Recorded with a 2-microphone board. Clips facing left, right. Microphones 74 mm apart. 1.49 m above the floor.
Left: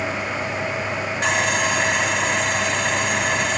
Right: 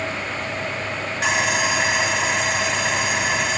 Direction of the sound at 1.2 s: 5° right (ahead or behind).